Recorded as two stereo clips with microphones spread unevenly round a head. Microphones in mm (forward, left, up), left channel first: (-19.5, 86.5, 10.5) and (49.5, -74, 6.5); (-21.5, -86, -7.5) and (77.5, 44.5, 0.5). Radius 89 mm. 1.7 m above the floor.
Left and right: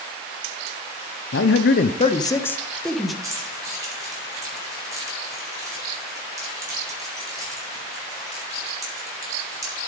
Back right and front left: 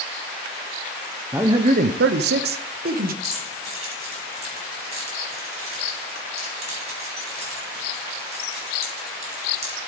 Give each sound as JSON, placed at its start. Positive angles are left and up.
{"t": 1.3, "sound": "a man speaking", "azimuth_deg": 135, "distance_m": 0.7}
{"t": 3.2, "sound": "keys jangling", "azimuth_deg": 5, "distance_m": 6.0}